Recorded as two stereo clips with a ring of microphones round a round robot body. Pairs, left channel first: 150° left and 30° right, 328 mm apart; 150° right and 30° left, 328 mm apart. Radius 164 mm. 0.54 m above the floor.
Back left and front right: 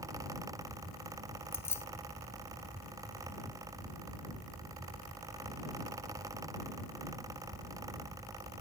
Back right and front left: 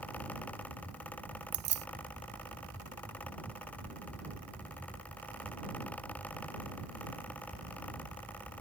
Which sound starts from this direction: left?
Keys jangling, at 1.5 s.